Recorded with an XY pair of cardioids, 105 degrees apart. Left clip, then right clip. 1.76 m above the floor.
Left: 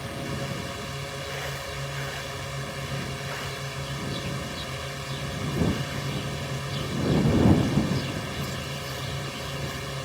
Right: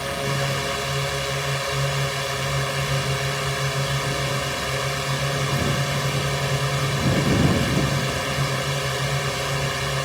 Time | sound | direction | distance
0.0 | a drone | 60° right | ?